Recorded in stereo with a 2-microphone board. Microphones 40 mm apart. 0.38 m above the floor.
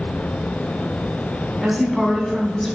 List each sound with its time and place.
1.6 s a woman speaking: 5° right (ahead or behind), 3 m; by 2.8 s 10° left (ahead or behind), 2.5 m